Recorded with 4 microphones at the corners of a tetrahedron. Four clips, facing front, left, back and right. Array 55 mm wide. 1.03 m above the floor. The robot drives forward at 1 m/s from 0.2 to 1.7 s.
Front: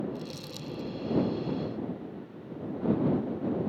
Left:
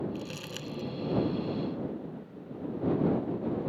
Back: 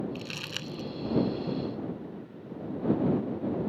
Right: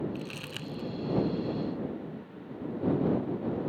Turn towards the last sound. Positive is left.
turn(degrees=-165)